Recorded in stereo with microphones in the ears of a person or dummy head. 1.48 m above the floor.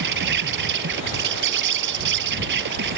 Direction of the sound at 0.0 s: 70° right (ahead or behind).